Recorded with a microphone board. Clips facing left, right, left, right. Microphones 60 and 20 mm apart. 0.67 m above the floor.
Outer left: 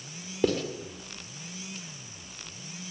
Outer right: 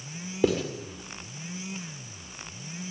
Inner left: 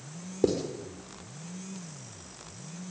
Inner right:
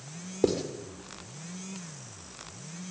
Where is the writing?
5° right (ahead or behind), 2.5 m.